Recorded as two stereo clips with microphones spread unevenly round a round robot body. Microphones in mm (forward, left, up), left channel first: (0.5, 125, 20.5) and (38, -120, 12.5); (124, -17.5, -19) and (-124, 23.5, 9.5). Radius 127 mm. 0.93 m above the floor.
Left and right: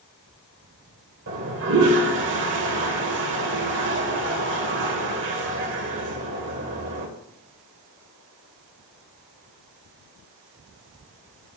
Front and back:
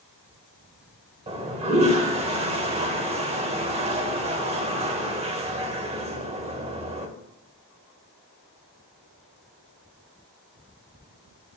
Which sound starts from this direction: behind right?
A toilet flushing, at 1.3 s.